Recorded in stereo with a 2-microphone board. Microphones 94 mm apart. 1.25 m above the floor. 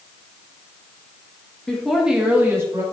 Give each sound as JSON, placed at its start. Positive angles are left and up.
{"t": 1.7, "sound": "a woman speaking", "side_deg": 5, "distance_m": 1.7}